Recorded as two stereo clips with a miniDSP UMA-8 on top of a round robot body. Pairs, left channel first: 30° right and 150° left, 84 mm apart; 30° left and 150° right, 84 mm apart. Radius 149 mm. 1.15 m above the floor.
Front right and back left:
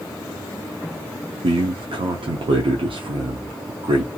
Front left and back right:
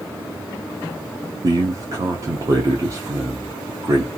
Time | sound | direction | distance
1.4 | a man speaking | 160° left | 0.7 m